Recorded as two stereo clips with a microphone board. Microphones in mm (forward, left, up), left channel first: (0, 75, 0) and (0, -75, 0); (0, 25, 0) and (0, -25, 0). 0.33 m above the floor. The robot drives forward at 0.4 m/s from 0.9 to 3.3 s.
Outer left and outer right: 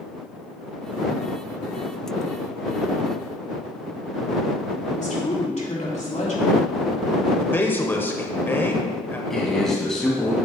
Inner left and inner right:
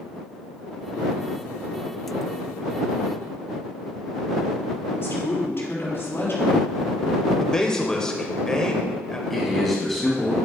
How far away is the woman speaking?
About 3 m.